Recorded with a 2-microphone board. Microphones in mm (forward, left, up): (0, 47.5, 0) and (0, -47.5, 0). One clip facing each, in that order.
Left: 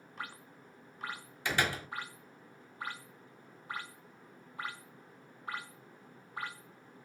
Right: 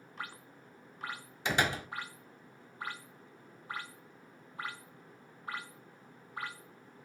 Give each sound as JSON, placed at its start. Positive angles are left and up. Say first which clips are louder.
{"t": 1.4, "sound": "a door slam", "louder": "right 2 dB", "side_deg": -25, "distance_m": 1.0}